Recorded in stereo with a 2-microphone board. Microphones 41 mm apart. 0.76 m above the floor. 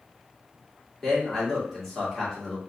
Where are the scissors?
I don't hear scissors.